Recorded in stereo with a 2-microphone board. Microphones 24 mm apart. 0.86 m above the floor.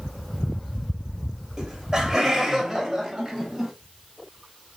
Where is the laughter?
25° right (ahead or behind), 4 m; by 3.7 s 10° right (ahead or behind), 5.5 m.